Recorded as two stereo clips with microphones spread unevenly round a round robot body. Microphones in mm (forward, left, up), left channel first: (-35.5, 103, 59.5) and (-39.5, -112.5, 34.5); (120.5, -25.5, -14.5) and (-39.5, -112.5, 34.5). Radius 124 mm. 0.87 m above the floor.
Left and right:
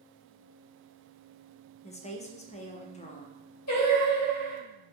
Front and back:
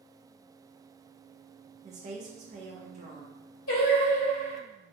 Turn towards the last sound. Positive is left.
turn(degrees=65)